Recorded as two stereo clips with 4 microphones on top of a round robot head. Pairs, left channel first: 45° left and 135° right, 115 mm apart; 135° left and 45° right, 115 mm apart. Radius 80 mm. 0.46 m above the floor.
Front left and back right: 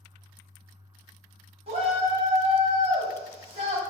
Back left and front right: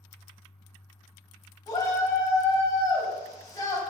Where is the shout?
165° right, 3.5 m.